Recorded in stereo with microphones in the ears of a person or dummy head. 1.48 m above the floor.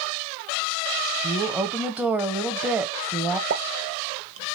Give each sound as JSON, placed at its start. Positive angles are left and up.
{"t": 1.2, "sound": "a woman speaking", "side_deg": -5, "distance_m": 0.6}
{"t": 3.5, "sound": "a pop", "side_deg": -75, "distance_m": 0.7}